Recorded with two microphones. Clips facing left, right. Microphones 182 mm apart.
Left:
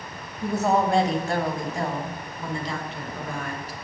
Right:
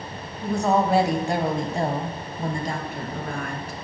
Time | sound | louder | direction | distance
0.4 | a woman speaking | right 1 dB | 15° left (ahead or behind) | 0.9 m